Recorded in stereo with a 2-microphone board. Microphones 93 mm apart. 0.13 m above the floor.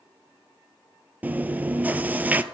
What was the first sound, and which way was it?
Chewing, 20° right (ahead or behind).